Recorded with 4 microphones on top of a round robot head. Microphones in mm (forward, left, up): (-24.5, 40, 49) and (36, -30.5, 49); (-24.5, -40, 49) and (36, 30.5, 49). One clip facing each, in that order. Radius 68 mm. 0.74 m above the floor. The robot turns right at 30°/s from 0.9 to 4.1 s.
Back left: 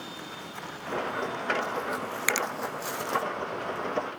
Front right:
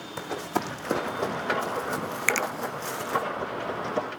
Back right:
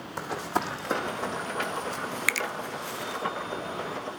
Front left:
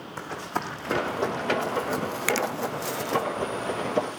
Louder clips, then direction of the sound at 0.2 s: Front right 10 dB, back right 2 dB; 55° right.